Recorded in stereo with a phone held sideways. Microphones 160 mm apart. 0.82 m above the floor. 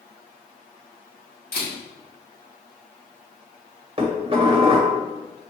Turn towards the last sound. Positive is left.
turn(degrees=-35)  # may be behind; listen again after turning